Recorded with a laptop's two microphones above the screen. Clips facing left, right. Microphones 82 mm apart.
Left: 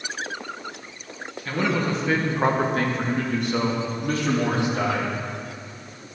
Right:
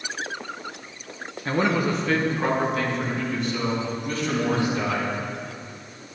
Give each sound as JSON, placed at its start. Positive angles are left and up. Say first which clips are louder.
{"t": 1.4, "sound": "a man speaking", "louder": "right 2 dB", "side_deg": -30, "distance_m": 0.9}